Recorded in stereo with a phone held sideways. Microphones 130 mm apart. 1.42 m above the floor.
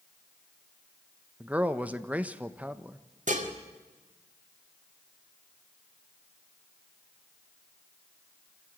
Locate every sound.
1.4 s a man speaking: 10° right (ahead or behind), 1.0 m
3.3 s dishes clattering: 70° right (ahead or behind), 2.5 m